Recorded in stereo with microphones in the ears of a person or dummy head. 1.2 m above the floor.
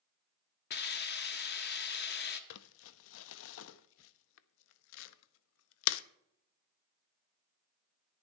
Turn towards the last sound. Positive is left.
turn(degrees=65)  # may be behind; listen again after turning